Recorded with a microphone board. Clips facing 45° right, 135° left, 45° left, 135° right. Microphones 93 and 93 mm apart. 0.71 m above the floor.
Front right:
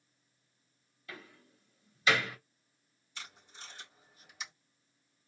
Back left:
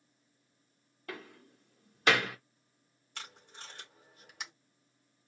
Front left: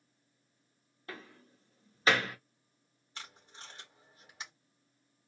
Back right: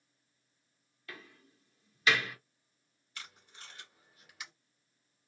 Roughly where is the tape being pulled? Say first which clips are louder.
Back left 2 dB, front left 2 dB; left.